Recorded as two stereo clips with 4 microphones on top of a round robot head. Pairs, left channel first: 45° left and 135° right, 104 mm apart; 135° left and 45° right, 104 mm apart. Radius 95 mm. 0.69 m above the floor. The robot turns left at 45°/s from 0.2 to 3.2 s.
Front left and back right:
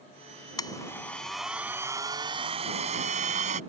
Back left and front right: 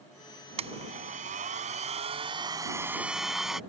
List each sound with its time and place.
0.6 s a blender: 15° right; by 3.6 s 130° right